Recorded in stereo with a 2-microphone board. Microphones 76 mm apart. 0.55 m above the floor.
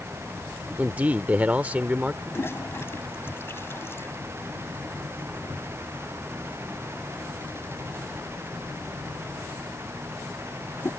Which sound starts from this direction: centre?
A man speaking, at 0.8 s.